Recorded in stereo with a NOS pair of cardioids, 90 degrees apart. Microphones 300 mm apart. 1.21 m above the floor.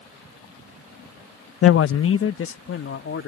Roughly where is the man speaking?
Ahead left.